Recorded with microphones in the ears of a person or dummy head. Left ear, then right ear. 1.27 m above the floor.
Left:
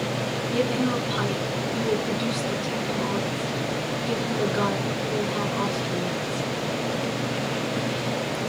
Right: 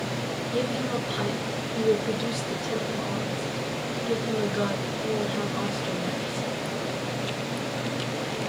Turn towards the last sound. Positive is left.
turn(degrees=5)  # may be behind; listen again after turning